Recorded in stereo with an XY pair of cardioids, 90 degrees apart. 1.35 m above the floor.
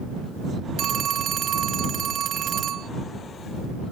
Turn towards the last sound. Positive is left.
turn(degrees=-70)